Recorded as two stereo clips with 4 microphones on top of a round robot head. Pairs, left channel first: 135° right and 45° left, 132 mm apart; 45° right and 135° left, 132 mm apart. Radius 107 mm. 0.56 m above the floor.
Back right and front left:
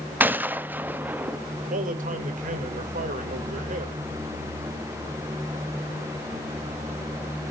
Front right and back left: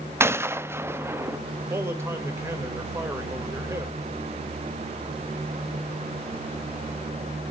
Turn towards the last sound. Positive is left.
turn(degrees=65)